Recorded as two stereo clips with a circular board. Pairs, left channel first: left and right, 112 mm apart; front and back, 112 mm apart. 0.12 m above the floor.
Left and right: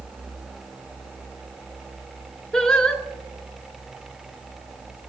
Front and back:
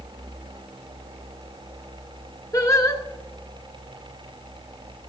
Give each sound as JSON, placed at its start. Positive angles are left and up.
{"t": 2.5, "sound": "singing", "azimuth_deg": 10, "distance_m": 0.8}